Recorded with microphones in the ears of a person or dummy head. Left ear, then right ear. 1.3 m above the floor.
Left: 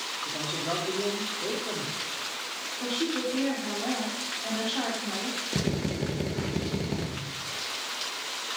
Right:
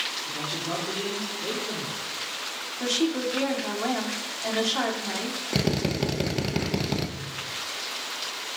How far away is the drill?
About 1.0 m.